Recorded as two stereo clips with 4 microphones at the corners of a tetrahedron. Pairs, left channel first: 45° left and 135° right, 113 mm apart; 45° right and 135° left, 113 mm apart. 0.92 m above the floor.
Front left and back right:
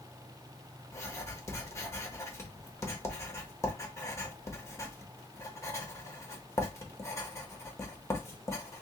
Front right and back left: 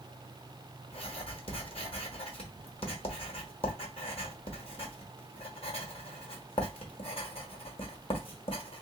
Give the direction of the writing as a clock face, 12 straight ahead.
1 o'clock.